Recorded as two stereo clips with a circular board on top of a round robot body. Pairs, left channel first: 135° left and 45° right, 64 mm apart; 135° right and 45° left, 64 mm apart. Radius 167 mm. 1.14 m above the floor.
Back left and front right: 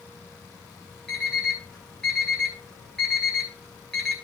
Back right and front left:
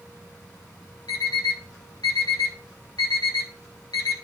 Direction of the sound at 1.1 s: 145° right.